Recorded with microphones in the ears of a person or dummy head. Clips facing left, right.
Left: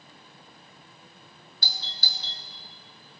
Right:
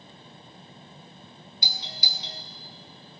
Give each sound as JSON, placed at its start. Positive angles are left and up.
{"t": 1.6, "sound": "a doorbell", "side_deg": -15, "distance_m": 0.6}